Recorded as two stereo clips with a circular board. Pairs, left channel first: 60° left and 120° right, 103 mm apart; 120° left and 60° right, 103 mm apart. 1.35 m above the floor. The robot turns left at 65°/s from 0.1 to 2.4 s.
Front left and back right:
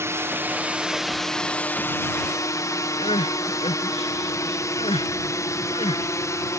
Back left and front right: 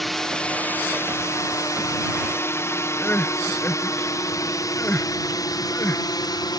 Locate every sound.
0.0 s a drone: 150° right; by 6.6 s 105° left
3.0 s crying: 50° left